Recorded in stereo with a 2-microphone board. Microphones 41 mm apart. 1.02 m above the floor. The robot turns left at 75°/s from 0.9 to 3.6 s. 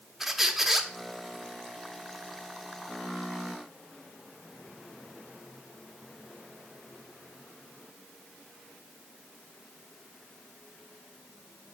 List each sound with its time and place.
0.2 s a squeak: 10° right (ahead or behind), 0.7 m